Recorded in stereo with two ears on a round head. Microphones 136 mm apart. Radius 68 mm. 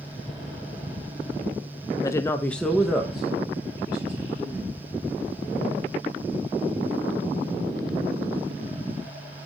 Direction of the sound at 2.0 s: 25° left (ahead or behind).